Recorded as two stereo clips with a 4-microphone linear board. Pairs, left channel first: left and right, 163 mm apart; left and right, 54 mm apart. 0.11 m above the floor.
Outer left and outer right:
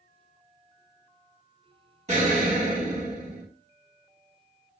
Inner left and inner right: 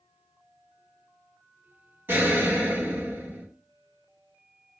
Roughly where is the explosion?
Right.